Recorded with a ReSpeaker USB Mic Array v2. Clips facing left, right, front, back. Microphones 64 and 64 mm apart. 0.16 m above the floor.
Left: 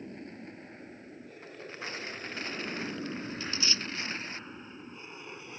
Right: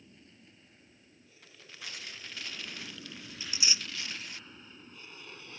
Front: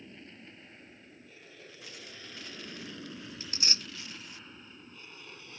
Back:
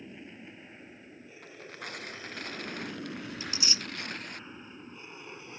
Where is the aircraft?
105° left; by 5.6 s 140° left.